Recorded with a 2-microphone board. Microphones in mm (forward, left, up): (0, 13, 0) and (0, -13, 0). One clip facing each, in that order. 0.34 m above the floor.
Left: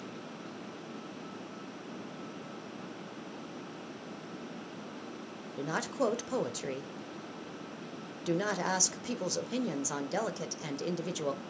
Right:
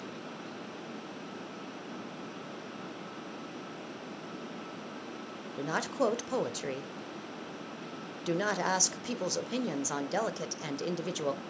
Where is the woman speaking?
10° right (ahead or behind), 0.9 m.